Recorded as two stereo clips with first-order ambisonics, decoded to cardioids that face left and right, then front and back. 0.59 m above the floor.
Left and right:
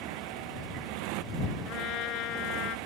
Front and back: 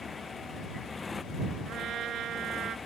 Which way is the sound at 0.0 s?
80° right.